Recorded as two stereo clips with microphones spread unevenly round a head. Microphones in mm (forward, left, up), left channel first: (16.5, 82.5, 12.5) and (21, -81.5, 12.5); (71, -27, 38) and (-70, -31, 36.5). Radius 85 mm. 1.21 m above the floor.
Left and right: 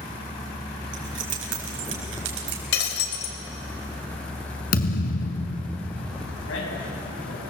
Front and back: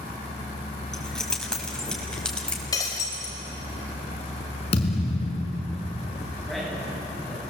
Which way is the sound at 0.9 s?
85° right.